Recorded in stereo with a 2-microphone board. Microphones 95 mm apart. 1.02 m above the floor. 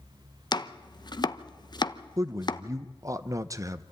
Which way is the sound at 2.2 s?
35° right (ahead or behind).